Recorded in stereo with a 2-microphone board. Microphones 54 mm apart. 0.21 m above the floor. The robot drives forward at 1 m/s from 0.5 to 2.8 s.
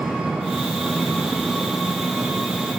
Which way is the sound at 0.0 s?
10° right (ahead or behind).